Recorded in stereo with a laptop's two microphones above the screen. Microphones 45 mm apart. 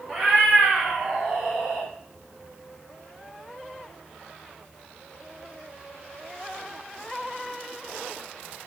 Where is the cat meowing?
Centre (ahead or behind), 1.1 m; by 1.9 s 25° right (ahead or behind), 0.9 m.